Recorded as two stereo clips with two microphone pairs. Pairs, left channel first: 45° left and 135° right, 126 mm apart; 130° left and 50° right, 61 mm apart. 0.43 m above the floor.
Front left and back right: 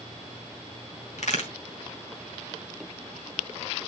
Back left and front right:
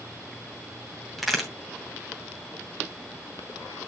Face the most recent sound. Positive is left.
turn(degrees=40)